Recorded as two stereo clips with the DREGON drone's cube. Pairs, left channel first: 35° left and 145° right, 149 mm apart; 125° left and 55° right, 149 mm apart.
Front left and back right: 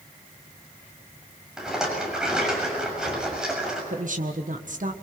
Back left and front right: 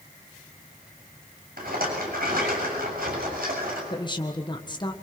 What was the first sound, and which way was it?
A rattle, 60° right.